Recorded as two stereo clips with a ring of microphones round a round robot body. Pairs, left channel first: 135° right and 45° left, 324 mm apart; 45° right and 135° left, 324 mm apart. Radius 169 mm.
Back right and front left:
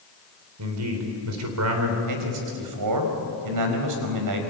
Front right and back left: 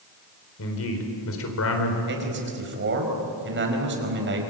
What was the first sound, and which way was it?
A man speaking, 5° left.